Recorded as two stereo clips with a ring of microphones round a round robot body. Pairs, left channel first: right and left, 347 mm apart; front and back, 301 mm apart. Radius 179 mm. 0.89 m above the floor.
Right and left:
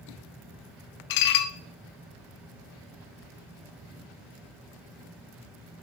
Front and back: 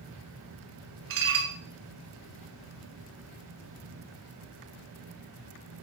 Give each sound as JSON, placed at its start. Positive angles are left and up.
{"t": 1.1, "sound": "dishes clattering", "azimuth_deg": -125, "distance_m": 0.5}